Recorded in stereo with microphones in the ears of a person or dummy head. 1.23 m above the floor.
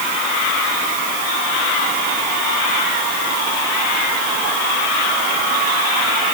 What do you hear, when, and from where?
Only background noise.